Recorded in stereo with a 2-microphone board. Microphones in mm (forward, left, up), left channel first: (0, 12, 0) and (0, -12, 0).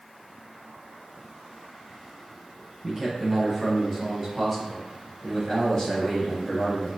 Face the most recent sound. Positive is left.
turn(degrees=20)  # may be behind; listen again after turning